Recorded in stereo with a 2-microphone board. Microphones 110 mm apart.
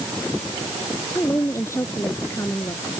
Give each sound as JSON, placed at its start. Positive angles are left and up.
{"t": 1.1, "sound": "a woman speaking", "side_deg": 25}